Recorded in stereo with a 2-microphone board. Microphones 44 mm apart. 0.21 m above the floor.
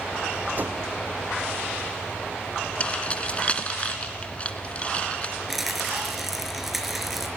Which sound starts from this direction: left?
Keys jangling, at 2.8 s.